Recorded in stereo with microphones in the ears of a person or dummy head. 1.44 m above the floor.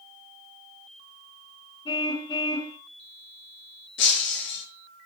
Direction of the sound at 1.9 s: 15° left (ahead or behind).